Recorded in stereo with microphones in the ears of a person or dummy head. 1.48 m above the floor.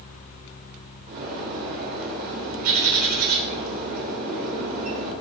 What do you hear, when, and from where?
1.1 s a bird: 40° right (ahead or behind), 5 m